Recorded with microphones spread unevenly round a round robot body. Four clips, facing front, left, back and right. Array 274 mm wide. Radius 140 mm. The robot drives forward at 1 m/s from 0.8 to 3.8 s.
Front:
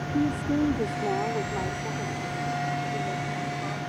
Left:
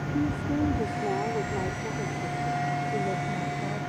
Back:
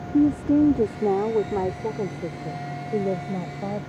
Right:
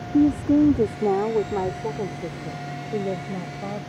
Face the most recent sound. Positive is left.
turn(degrees=-160)